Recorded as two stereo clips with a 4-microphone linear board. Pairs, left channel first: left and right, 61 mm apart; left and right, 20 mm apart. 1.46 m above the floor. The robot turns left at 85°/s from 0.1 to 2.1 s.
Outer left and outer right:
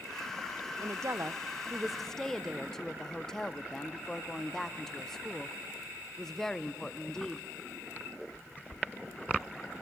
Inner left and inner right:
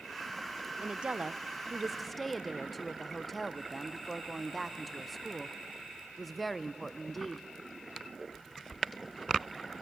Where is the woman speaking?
80° right, 0.5 m; by 7.5 s 170° left, 0.5 m.